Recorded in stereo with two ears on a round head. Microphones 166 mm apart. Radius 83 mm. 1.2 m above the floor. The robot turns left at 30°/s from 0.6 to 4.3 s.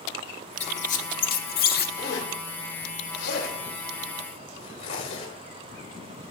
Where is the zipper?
75° left (ahead or behind), 6 m; by 5.3 s 35° left (ahead or behind), 6 m.